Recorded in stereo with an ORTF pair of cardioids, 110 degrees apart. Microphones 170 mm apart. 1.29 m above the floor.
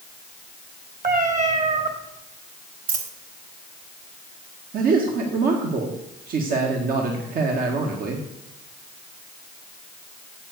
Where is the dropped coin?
55° right, 2 m.